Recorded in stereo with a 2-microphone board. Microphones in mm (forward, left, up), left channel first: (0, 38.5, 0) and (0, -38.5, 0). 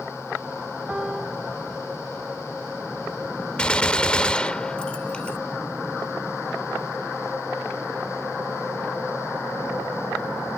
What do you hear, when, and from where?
0.9 s a piano: 10° right (ahead or behind)
3.6 s a gunshot: 15° left (ahead or behind)